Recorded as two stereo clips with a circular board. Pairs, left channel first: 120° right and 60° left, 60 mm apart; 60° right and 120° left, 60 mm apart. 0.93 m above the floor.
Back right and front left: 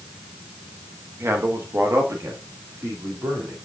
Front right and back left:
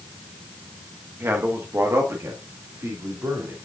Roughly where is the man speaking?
Left.